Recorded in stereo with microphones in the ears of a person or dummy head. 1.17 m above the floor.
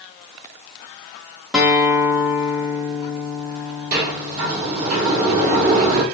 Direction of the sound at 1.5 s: 5° right (ahead or behind).